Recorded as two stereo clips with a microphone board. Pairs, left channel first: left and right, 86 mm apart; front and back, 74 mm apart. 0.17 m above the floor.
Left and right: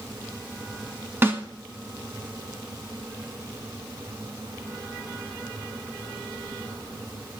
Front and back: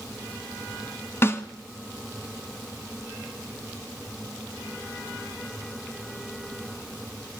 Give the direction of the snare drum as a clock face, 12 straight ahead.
1 o'clock.